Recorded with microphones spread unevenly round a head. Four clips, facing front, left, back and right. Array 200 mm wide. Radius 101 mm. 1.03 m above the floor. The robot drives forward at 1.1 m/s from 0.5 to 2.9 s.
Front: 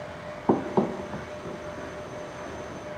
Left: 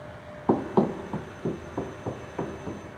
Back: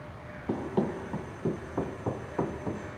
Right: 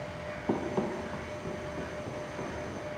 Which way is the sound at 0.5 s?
45° left.